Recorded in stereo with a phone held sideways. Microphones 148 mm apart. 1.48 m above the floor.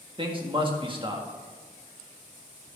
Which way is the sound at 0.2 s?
35° right (ahead or behind).